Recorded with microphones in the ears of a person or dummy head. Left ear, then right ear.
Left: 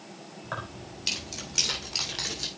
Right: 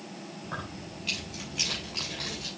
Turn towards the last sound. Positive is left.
turn(degrees=80)